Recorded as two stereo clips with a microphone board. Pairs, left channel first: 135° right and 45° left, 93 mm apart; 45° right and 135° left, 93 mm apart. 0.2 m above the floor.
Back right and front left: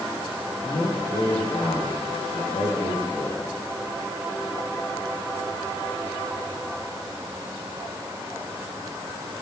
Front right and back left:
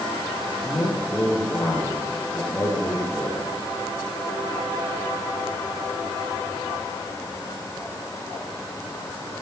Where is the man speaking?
100° right, 8 m.